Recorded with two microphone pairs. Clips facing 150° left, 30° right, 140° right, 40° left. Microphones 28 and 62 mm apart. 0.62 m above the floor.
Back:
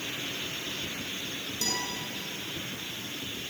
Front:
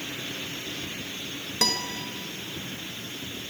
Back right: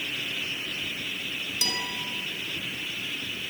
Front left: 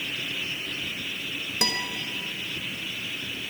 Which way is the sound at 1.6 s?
Straight ahead.